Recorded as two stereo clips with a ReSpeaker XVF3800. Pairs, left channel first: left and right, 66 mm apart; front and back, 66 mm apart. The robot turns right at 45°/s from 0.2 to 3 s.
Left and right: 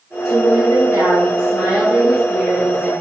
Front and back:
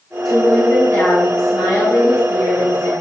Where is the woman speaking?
85° right, 3 m; by 2.9 s 35° left, 3 m.